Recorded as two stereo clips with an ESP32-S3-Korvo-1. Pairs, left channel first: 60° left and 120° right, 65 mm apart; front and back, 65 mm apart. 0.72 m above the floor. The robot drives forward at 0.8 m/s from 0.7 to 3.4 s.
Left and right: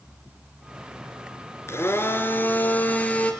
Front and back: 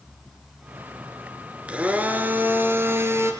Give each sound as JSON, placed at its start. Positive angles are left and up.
{"t": 1.7, "sound": "a blender", "azimuth_deg": 110, "distance_m": 2.5}